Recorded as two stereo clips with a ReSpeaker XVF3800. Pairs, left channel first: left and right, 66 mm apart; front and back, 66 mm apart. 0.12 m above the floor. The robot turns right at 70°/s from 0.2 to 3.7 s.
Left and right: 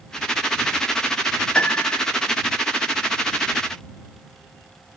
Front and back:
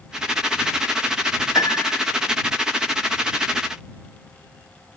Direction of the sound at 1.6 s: 15° left.